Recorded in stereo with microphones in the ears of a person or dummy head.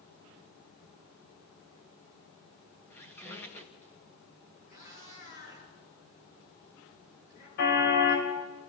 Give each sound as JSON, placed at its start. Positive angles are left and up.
{"t": 2.9, "sound": "a squeak", "side_deg": 10, "distance_m": 1.6}
{"t": 4.7, "sound": "a cat meowing", "side_deg": 40, "distance_m": 6.0}
{"t": 7.6, "sound": "a car horn", "side_deg": 60, "distance_m": 3.5}